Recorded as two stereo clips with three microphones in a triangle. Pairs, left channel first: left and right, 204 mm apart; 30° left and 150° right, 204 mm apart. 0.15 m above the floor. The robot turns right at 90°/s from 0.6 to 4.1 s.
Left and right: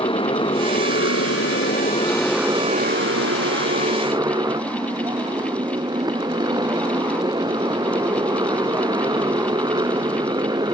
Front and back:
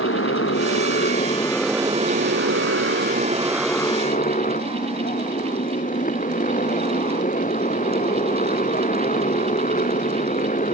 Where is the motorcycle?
25° left; by 10.7 s 20° right.